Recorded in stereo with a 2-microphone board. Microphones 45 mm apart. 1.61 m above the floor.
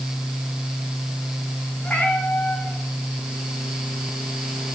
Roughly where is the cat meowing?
Left.